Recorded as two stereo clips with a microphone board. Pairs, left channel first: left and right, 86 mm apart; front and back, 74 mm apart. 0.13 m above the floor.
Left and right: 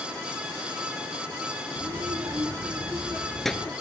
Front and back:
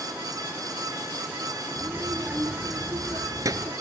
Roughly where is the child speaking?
Behind right.